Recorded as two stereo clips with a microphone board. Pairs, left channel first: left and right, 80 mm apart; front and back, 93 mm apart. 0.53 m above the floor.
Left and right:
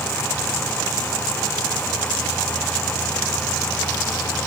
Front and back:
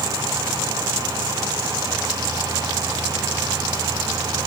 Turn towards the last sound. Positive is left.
No sound to turn to.